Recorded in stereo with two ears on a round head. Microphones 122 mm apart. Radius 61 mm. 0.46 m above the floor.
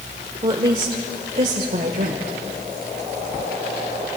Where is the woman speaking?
30° right (ahead or behind), 1.5 m; by 2.4 s 60° right (ahead or behind), 1.9 m.